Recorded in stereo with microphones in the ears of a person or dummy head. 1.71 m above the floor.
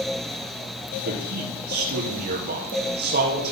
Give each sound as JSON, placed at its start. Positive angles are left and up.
{"t": 1.1, "sound": "a man speaking", "side_deg": -50, "distance_m": 3.5}